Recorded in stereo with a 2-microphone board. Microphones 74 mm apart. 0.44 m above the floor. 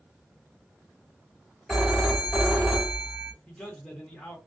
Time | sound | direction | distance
1.7 | a phone ringing | 10° right (ahead or behind) | 1.4 m
3.5 | a man speaking | 10° left (ahead or behind) | 0.9 m